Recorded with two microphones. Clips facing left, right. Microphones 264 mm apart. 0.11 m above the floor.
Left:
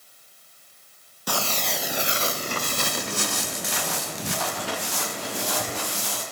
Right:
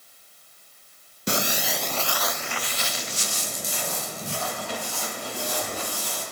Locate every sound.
1.3 s footsteps: 25° right (ahead or behind), 0.7 m; by 6.2 s 90° left, 3 m